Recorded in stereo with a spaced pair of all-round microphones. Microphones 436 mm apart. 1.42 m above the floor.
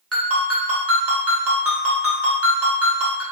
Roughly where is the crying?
I don't hear crying.